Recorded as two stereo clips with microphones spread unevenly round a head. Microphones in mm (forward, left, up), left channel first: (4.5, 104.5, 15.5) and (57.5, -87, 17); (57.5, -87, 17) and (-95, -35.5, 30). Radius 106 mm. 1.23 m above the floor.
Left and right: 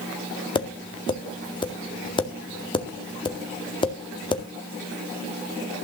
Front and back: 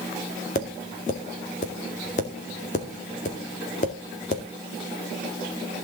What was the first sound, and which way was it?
Tapping, 40° left.